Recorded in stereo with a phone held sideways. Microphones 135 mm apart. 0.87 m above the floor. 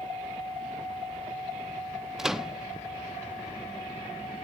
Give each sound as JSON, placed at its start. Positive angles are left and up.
{"t": 2.2, "sound": "a microwave", "side_deg": -5, "distance_m": 1.0}